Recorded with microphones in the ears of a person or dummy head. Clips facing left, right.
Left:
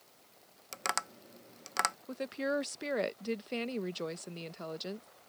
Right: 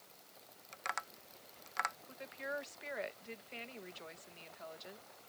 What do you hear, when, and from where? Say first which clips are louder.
0.7 s tapping: left 7 dB; 55° left (ahead or behind)
2.1 s a woman speaking: left 14 dB; 65° left (ahead or behind)